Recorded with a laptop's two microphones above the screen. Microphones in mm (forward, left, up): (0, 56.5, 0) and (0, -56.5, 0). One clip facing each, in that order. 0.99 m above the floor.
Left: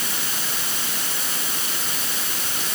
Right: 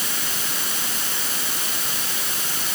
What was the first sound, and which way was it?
Only background noise.